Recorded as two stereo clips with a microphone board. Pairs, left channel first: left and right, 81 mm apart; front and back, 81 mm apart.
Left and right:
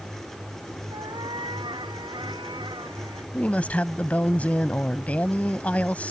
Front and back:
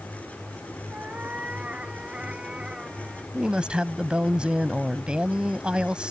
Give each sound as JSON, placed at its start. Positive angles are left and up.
{"t": 0.9, "sound": "a cat meowing", "azimuth_deg": -110}
{"t": 3.3, "sound": "a woman speaking", "azimuth_deg": 125}